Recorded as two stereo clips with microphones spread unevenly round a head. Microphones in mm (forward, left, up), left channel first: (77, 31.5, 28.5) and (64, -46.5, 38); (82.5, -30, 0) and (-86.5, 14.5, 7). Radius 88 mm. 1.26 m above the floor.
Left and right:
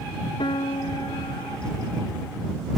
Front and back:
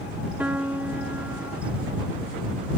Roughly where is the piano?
Left.